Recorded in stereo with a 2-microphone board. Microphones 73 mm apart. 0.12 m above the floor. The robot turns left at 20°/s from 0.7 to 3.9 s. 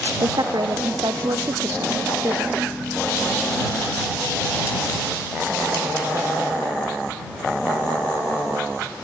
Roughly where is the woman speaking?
Right.